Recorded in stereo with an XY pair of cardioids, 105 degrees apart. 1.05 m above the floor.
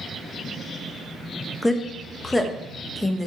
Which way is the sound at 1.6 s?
10° left.